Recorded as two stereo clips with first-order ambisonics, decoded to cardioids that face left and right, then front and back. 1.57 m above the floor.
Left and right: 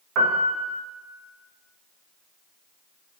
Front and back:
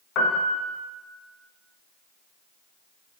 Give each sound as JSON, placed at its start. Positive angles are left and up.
{"t": 0.1, "sound": "a piano", "azimuth_deg": -50, "distance_m": 0.5}